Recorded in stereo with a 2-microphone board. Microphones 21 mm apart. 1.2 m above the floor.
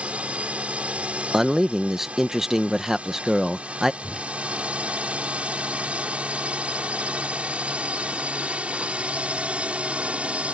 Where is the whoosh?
10° right (ahead or behind).